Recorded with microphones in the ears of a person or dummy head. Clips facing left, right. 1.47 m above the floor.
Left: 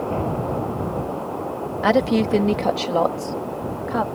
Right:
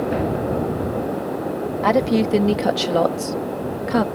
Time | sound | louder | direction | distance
1.8 | a woman speaking | even | 5° left (ahead or behind) | ?